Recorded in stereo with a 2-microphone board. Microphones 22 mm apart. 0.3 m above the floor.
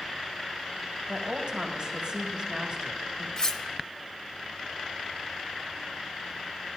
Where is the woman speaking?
45° right (ahead or behind), 1.4 m.